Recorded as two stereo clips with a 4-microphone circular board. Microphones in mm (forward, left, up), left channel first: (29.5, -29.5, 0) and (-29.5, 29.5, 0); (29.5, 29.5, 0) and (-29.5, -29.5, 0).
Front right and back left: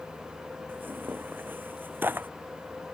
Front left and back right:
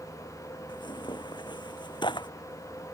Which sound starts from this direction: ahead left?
Tearing paper, at 0.7 s.